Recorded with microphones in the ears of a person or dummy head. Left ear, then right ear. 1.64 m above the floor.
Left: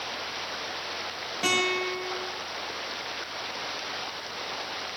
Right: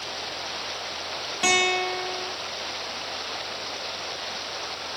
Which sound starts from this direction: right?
A guitar, at 1.4 s.